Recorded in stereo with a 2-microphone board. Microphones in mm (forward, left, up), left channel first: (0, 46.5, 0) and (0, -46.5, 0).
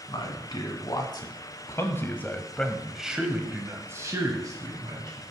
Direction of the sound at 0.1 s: 55° left (ahead or behind).